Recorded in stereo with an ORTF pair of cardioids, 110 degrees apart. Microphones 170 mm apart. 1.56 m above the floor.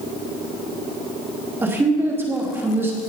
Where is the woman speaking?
15° right, 3 m.